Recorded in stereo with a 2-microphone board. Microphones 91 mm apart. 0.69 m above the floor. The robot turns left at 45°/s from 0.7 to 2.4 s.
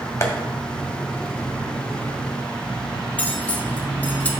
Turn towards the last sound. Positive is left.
turn(degrees=15)  # may be behind; listen again after turning